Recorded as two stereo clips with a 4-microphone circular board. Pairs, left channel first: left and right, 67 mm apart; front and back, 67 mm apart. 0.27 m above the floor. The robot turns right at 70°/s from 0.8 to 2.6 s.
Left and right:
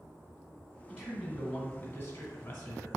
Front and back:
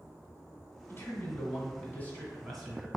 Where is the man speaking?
25° right, 1.5 m; by 2.9 s 95° left, 1.5 m.